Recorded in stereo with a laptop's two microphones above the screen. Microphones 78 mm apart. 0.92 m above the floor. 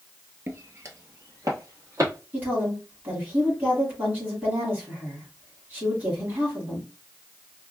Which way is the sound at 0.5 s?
35° right (ahead or behind).